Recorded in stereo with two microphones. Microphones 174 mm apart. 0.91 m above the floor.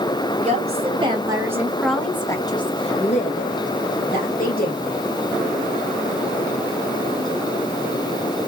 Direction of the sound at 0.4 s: 40° right (ahead or behind).